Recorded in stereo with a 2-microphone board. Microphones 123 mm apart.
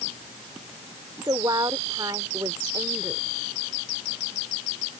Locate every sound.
1.2 s a woman speaking: 35° right (ahead or behind)